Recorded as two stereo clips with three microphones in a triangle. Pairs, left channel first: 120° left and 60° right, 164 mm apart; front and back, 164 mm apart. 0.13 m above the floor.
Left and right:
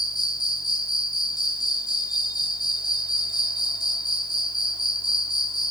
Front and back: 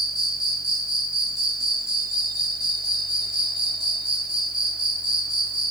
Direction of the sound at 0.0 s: 175° right.